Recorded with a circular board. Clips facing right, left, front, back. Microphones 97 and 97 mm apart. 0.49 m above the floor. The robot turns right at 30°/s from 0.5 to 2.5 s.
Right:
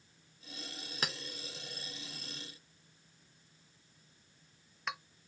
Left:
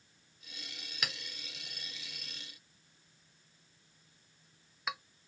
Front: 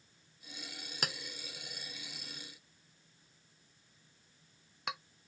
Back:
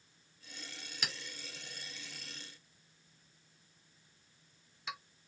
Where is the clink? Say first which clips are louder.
Right 2 dB, front 3 dB; 35° right, 0.5 m; by 5.0 s 5° left, 0.5 m.